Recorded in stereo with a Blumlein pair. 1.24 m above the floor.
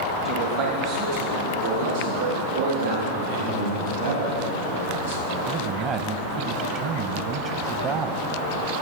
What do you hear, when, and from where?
0.2 s a man speaking: 50° right, 1.0 m; by 3.0 s 65° right, 5 m
3.1 s a man speaking: 65° right, 3.5 m
5.5 s a man speaking: 35° right, 0.9 m